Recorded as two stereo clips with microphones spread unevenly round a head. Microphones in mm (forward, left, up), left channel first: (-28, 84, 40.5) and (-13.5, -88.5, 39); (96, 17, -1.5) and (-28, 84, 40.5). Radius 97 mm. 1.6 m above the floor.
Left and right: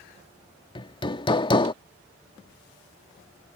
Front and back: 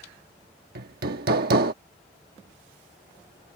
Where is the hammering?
160° left.